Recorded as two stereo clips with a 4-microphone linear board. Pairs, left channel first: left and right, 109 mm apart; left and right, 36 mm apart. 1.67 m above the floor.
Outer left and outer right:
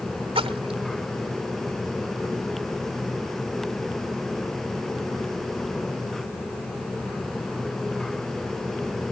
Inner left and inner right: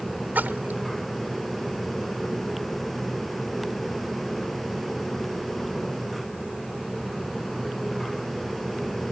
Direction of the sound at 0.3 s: 60° right (ahead or behind).